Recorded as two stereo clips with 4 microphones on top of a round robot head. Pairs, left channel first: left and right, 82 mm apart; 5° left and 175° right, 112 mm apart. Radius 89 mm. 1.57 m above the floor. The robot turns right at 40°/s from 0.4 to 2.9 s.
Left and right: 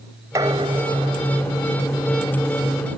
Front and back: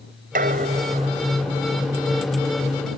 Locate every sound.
0.3 s dishes clattering: 155° right; by 1.9 s 95° right